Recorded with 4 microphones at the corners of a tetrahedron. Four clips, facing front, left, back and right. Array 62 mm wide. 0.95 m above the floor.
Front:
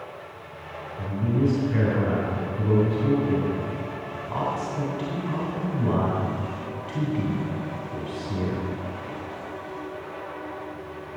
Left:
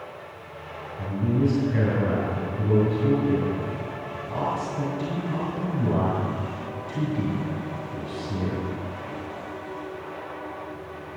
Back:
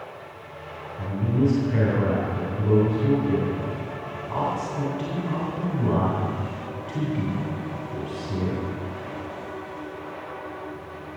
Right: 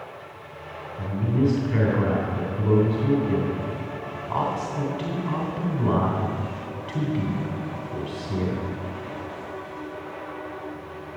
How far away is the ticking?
No ticking in this recording.